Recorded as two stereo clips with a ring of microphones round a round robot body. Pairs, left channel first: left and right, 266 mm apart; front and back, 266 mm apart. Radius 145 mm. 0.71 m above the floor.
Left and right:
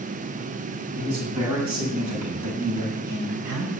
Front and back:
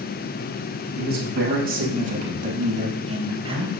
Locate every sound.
1.0 s a man speaking: 125° right, 6.5 m; by 3.7 s 110° right, 4.5 m